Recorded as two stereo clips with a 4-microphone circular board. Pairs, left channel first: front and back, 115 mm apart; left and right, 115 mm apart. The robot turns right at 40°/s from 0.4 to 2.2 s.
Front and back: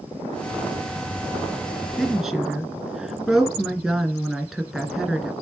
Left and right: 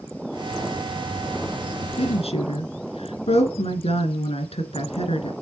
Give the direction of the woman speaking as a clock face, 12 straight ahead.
9 o'clock.